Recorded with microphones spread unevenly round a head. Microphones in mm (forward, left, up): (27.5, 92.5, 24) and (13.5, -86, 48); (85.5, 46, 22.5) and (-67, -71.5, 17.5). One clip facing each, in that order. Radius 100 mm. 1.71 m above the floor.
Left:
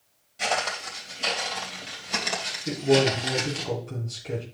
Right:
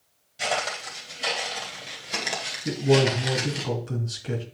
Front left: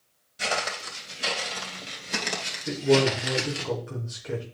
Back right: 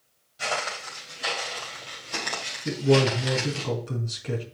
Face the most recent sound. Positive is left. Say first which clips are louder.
# even, even
turn(degrees=-100)